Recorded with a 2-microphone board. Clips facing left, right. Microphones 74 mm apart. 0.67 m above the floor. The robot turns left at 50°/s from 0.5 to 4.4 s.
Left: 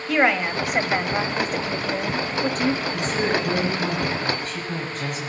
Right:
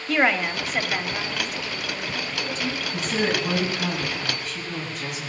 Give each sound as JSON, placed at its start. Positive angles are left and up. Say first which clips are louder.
{"t": 0.1, "sound": "a woman speaking", "louder": "left 2 dB", "azimuth_deg": 175, "distance_m": 1.1}
{"t": 2.8, "sound": "a woman speaking", "louder": "left 1 dB", "azimuth_deg": -150, "distance_m": 5.0}